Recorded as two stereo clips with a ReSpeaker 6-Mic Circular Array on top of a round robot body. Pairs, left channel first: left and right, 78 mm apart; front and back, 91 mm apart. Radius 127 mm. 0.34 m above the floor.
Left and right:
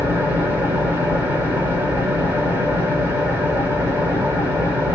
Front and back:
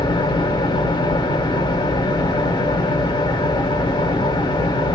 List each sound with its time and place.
0.0 s an engine running: 30° right, 2.5 m